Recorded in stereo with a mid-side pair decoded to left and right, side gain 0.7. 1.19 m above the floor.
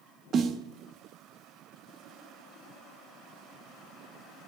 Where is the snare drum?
40° right, 1.2 m.